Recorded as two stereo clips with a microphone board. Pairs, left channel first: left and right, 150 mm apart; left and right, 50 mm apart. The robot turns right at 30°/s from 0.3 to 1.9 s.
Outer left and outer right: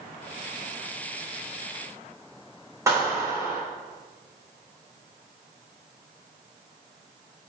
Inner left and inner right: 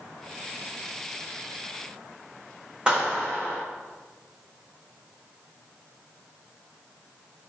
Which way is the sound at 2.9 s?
20° right (ahead or behind).